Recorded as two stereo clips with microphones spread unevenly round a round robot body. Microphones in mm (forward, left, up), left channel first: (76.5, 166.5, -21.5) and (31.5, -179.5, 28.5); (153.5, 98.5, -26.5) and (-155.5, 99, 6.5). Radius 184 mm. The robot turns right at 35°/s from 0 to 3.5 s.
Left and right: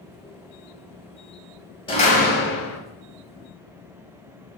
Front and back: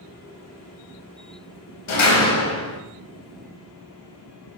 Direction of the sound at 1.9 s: 10° left.